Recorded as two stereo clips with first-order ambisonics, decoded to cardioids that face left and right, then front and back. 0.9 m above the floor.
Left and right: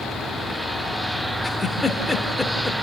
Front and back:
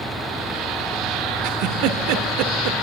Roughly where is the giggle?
Behind.